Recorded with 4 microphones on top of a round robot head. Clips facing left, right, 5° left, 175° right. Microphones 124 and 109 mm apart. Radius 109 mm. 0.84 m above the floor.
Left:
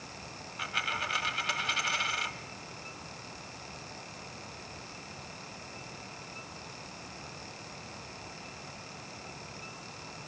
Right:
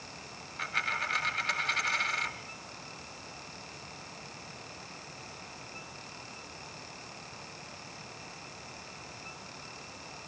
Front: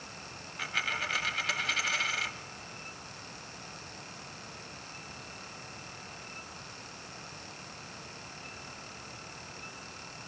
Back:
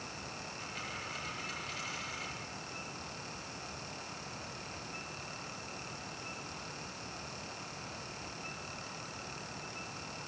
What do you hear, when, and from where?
0.6 s a dropped coin: 10° left, 1.4 m